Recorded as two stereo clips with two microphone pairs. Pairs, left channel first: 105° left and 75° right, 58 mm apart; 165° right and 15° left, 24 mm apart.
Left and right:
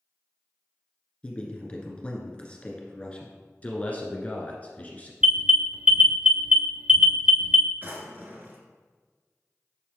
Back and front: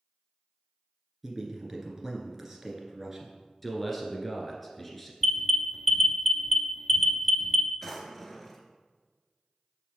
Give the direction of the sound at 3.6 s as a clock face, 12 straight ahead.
8 o'clock.